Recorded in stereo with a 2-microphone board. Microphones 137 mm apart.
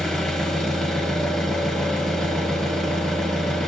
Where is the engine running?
5° left (ahead or behind), 2.5 m.